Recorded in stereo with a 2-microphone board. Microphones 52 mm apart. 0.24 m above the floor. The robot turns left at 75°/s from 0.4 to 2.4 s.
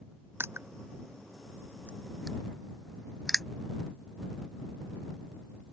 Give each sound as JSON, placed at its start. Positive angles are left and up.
{"t": 0.4, "sound": "crushing", "side_deg": -40}